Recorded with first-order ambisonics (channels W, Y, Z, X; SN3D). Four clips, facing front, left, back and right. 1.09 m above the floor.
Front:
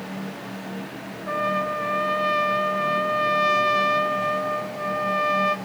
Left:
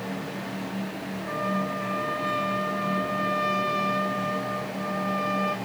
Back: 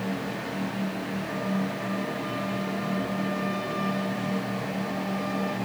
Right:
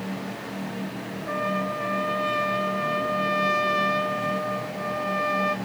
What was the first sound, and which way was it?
A trumpet, 15° right.